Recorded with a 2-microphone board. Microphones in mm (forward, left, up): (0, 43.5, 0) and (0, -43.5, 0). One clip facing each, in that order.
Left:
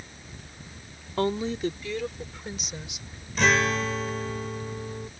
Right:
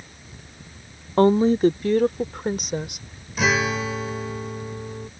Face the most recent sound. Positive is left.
turn(degrees=-5)  # may be behind; listen again after turning